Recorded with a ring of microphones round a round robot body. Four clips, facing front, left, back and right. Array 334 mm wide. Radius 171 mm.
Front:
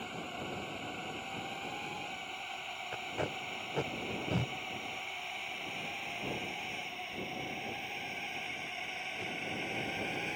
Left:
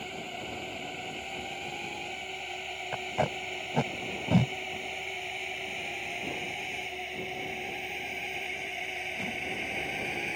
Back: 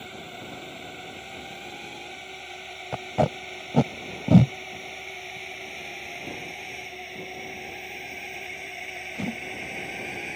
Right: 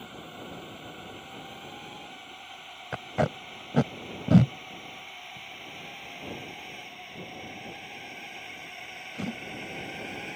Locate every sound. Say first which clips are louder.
0.0 s a drone: left 3 dB, back 1 dB; 130° left; by 10.4 s 135° left
2.9 s tape being pulled: right 2 dB, back 14 dB; 155° right